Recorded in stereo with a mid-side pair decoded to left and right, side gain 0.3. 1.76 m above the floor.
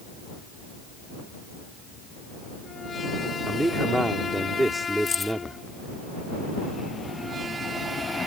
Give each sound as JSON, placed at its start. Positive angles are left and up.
{"t": 3.5, "sound": "a man speaking", "azimuth_deg": -15}
{"t": 5.1, "sound": "keys jangling", "azimuth_deg": 55}